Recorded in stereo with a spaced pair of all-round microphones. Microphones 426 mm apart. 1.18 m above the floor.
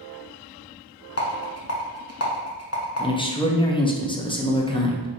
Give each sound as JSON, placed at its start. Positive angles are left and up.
{"t": 1.2, "sound": "a rattle", "side_deg": 35, "distance_m": 0.7}
{"t": 3.0, "sound": "a man speaking", "side_deg": 10, "distance_m": 0.5}